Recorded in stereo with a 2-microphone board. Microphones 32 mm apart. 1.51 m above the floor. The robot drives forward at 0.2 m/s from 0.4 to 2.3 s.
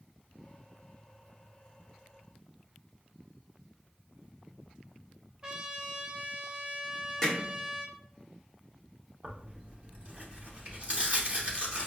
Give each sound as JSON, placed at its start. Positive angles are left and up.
{"t": 5.4, "sound": "a trumpet", "side_deg": -15, "distance_m": 0.6}
{"t": 7.2, "sound": "hammering", "side_deg": 10, "distance_m": 1.0}
{"t": 9.2, "sound": "tearing paper", "side_deg": -35, "distance_m": 0.8}